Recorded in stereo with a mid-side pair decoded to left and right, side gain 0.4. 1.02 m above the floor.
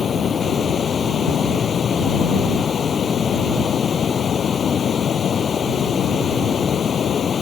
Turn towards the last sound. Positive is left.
turn(degrees=50)